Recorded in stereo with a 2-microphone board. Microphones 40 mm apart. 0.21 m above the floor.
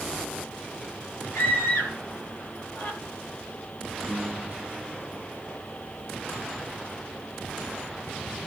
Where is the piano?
15° left (ahead or behind), 5 m.